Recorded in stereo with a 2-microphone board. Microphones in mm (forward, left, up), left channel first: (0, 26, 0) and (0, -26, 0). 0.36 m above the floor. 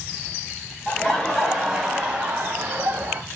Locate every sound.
0.9 s laughter: 20° left (ahead or behind), 1.1 m; by 3.2 s 40° right (ahead or behind), 1.3 m